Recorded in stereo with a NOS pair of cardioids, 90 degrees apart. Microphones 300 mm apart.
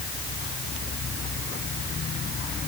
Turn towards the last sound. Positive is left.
No sound to turn to.